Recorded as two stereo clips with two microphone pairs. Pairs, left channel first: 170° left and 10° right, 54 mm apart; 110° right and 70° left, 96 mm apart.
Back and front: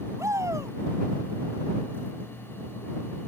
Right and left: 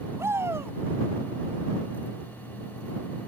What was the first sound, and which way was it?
A shout, 5° left.